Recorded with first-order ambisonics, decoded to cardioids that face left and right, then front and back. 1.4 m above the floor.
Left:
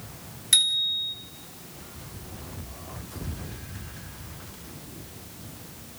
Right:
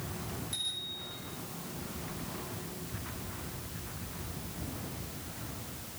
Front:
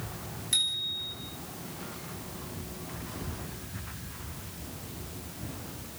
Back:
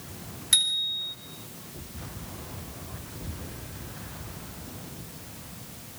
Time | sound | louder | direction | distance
0.5 | a bicycle bell | left 16 dB, back 4 dB | 115° left | 3.5 m